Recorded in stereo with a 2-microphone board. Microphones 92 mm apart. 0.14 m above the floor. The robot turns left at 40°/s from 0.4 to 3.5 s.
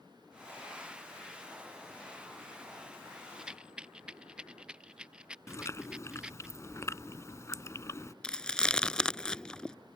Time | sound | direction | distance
3.4 | a rattle | 5° right (ahead or behind) | ?
5.5 | chewing | 35° left (ahead or behind) | ?
8.2 | chewing | 10° left (ahead or behind) | ?